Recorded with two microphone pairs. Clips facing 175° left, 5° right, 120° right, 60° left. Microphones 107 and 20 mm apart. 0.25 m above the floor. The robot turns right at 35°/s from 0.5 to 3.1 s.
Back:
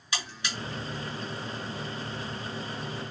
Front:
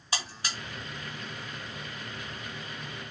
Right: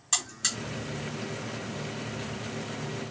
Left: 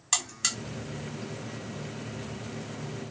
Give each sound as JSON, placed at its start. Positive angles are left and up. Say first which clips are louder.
{"t": 0.1, "sound": "a buzzer", "louder": "even, left 1 dB", "azimuth_deg": -15, "distance_m": 2.0}